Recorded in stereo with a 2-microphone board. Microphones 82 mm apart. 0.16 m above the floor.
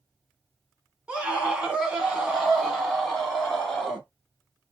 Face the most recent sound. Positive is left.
turn(degrees=0)  # may be behind; listen again after turning